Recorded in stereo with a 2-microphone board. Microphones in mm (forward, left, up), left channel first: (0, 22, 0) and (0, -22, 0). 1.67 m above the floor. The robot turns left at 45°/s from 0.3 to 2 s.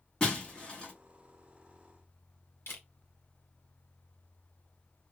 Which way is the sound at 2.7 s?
65° left (ahead or behind).